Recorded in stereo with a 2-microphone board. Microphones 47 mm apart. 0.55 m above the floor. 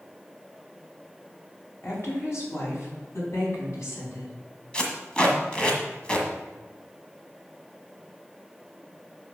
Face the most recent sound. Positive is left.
turn(degrees=20)  # may be behind; listen again after turning